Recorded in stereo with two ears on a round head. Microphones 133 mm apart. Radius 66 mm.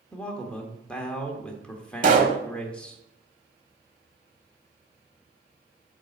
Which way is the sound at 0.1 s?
5° left (ahead or behind).